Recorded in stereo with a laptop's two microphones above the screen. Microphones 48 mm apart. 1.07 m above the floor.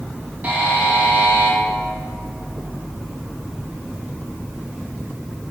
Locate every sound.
0.4 s a buzzer: 35° right (ahead or behind), 1.0 m